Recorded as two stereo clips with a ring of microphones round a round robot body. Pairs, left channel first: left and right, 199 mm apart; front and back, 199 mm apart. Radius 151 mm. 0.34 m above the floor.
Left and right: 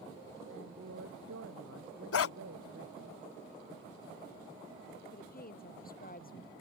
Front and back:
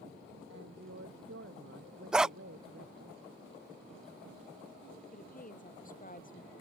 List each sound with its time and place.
0.5 s a woman speaking: 130° right
2.1 s a dog barking: 95° left
5.1 s a woman speaking: 45° left